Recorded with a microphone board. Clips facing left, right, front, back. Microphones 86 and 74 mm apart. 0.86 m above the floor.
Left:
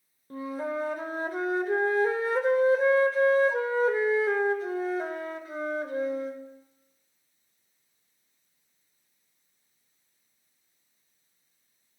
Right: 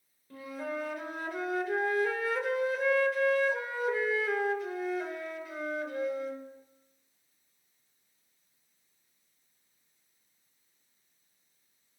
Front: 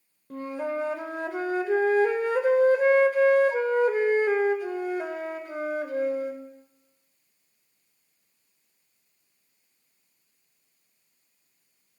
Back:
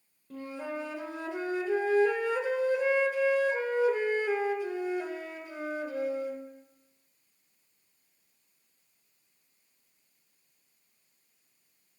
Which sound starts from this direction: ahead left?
A flute, at 0.3 s.